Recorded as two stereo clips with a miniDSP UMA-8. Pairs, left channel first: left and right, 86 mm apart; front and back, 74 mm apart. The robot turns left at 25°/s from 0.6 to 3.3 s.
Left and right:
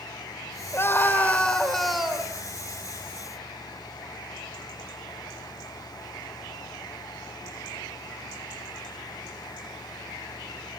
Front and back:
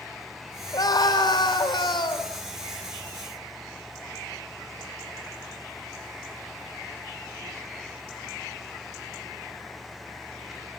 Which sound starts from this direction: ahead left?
A scream, at 0.7 s.